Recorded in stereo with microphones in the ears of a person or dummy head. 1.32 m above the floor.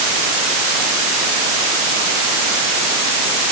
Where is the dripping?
I don't hear dripping.